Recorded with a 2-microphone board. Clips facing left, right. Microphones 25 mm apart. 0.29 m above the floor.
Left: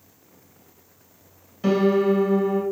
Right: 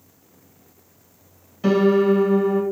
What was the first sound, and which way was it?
A piano, 5° right (ahead or behind).